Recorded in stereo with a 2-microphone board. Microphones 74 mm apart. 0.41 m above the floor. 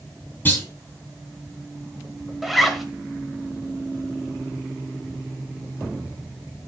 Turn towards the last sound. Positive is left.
turn(degrees=0)  # may be behind; listen again after turning